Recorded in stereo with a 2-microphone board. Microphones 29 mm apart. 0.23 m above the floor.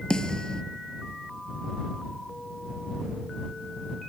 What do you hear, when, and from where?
0.1 s a snare drum: 20° left (ahead or behind)